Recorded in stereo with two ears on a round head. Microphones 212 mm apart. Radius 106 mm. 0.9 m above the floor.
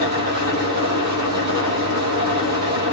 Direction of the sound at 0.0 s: 40° right (ahead or behind).